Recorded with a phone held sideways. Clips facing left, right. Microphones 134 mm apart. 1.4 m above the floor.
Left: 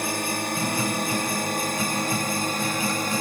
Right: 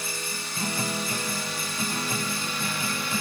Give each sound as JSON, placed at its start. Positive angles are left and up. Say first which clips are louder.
{"t": 0.0, "sound": "a drone", "louder": "left 9 dB", "side_deg": 55}